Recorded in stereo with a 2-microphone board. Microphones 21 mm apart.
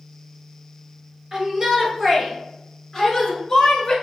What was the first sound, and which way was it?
A shout, 25° right (ahead or behind).